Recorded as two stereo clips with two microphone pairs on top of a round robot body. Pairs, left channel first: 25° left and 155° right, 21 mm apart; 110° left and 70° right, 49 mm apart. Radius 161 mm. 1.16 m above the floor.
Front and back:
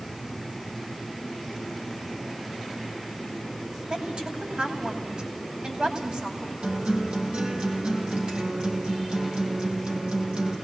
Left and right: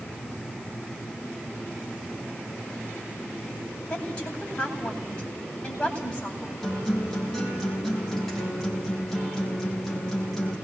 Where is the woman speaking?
175° left, 9 m.